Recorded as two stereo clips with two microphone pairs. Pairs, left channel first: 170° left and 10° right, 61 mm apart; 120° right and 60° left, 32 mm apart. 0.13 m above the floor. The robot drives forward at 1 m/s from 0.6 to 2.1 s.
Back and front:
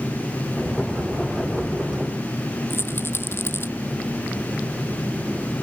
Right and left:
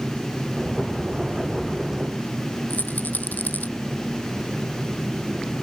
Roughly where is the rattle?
Behind right.